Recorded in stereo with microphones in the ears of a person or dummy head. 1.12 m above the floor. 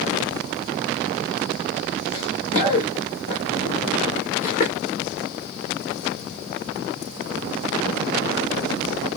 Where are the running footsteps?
35° left (ahead or behind), 4 m; by 4.7 s 45° left (ahead or behind), 5 m.